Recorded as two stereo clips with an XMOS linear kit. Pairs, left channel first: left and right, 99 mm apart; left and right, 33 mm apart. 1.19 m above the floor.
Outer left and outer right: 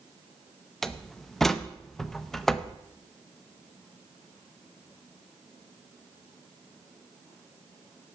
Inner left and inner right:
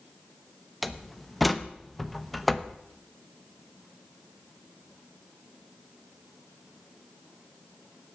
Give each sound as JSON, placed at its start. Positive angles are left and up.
{"t": 0.8, "sound": "a door slam", "side_deg": 5, "distance_m": 0.6}